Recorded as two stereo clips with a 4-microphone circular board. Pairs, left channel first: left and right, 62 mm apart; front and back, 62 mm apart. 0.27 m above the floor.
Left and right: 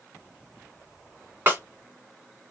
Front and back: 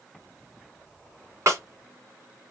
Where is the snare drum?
140° right, 1.1 m.